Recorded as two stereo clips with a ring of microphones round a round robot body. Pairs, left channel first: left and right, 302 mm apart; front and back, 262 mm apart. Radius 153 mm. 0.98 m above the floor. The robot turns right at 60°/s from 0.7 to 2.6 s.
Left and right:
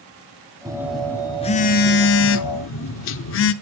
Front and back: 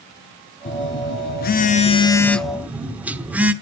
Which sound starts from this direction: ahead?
A phone buzzing, at 0.7 s.